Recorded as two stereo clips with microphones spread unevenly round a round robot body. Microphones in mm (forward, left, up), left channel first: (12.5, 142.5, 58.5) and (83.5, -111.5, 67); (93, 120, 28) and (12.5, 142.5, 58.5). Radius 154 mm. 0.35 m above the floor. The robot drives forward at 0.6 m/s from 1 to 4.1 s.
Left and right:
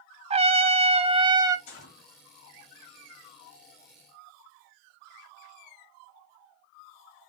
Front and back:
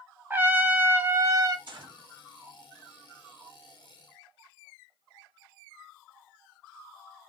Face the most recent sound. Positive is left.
turn(degrees=155)